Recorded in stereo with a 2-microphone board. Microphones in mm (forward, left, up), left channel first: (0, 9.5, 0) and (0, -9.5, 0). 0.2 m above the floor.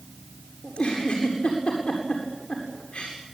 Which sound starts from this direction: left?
A giggle, at 0.6 s.